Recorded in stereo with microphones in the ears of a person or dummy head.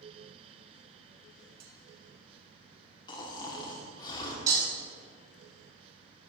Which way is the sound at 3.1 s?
25° left (ahead or behind).